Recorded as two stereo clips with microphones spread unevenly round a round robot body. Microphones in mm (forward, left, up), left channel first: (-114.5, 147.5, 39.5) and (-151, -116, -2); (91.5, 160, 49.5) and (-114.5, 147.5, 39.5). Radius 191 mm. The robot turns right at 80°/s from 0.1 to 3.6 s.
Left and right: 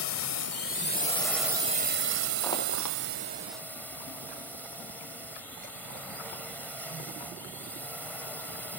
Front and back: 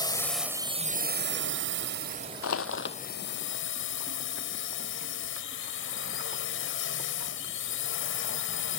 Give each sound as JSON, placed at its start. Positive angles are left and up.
{"t": 0.0, "sound": "a drone", "azimuth_deg": 70}
{"t": 2.4, "sound": "crushing", "azimuth_deg": -5}